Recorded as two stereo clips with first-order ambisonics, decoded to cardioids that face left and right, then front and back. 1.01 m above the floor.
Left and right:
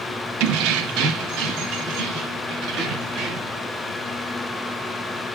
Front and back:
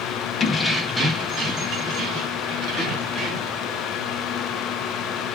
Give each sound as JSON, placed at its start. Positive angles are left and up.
{"t": 0.4, "sound": "keys jangling", "azimuth_deg": -70, "distance_m": 0.6}